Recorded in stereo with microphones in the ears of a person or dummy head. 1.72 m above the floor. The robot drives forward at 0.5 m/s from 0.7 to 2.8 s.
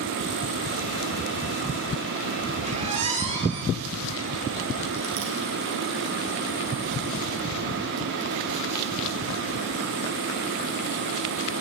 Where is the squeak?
35° right (ahead or behind), 1.5 m.